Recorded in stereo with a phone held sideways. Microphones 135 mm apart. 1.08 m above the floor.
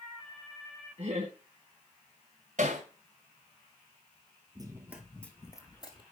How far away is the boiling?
No boiling in this recording.